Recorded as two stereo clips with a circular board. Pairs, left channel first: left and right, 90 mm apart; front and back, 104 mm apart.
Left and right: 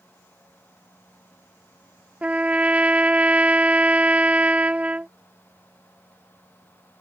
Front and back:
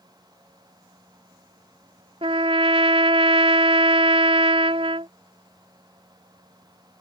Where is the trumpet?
165° right.